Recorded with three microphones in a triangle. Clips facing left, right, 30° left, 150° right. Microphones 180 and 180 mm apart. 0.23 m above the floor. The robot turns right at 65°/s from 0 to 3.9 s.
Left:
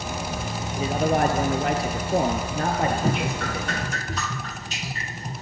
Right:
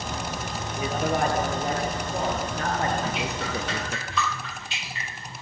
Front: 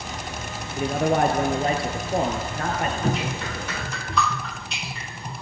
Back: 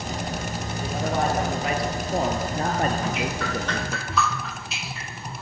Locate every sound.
0.8 s a man speaking: 25° left, 4.5 m; by 4.0 s 130° right, 4.5 m
3.0 s dripping: 65° left, 2 m; by 5.4 s 125° left, 2 m